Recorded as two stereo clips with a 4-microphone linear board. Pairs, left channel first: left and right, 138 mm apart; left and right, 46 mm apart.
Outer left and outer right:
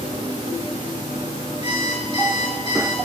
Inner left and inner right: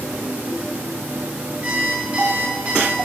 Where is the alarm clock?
30° right (ahead or behind), 6.5 m.